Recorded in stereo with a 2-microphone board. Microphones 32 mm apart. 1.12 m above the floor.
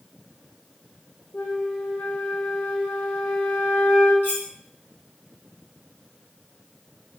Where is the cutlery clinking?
75° left (ahead or behind), 1.5 m.